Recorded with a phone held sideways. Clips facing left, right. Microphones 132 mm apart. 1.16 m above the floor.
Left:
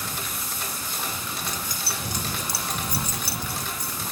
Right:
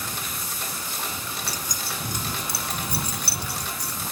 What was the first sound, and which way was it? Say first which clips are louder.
Keys jangling: even; 30° right (ahead or behind).